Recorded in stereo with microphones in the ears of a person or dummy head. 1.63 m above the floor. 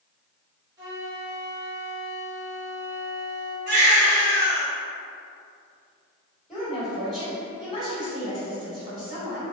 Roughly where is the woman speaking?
Centre.